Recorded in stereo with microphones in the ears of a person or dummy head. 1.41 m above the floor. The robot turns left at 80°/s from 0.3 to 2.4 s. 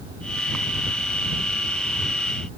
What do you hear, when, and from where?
Only background noise.